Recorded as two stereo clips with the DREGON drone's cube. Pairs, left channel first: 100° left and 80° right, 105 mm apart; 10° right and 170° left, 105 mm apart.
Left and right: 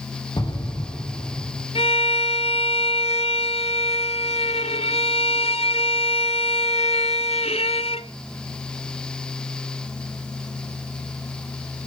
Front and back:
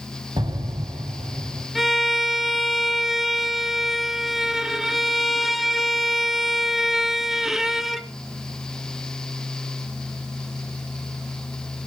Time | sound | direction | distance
0.4 | an explosion | 140° left | 2.5 m
1.8 | a violin | 80° left | 0.9 m